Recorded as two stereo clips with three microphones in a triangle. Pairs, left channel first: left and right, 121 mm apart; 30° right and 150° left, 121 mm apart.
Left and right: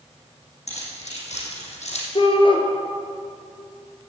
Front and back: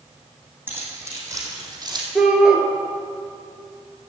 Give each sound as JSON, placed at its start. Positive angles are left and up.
{"t": 0.7, "sound": "keys jangling", "azimuth_deg": 80, "distance_m": 5.0}
{"t": 2.1, "sound": "a shout", "azimuth_deg": 65, "distance_m": 2.0}